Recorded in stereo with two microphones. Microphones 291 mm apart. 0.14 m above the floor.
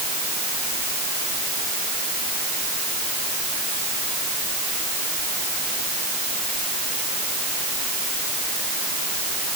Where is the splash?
I don't hear a splash.